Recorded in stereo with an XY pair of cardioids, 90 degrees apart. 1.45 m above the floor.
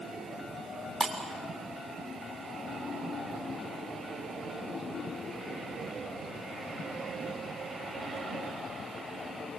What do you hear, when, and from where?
1.0 s breaking glass: 15° right, 5.5 m